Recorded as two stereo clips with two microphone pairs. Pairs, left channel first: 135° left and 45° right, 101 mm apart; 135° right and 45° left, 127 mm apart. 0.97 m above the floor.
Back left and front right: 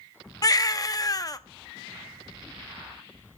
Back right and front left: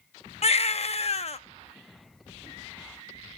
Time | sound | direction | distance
0.4 | a baby crying | 170° right | 0.8 m